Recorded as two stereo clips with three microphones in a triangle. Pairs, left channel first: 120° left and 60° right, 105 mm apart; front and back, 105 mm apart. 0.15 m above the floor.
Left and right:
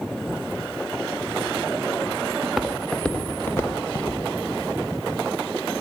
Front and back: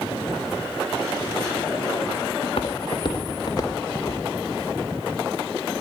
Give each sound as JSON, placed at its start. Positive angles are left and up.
{"t": 2.4, "sound": "footsteps", "azimuth_deg": 20, "distance_m": 1.1}